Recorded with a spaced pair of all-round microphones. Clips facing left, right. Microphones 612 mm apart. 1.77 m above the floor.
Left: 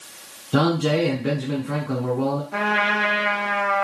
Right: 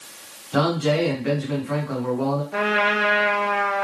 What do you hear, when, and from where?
0.5 s a man speaking: 65° left (ahead or behind), 1.3 m
2.5 s a trumpet: 30° left (ahead or behind), 0.8 m